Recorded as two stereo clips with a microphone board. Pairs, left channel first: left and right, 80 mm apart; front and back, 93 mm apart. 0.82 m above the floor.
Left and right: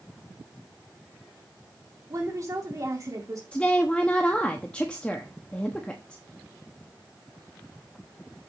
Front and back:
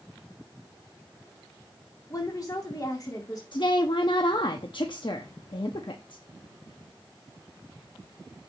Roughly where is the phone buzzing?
No phone buzzing in this recording.